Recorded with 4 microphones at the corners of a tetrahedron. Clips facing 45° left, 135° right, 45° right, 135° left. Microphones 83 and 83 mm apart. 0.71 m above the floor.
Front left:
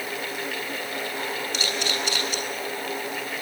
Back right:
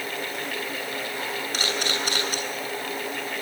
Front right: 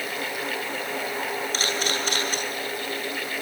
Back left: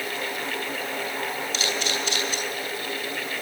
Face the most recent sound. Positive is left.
turn(degrees=-85)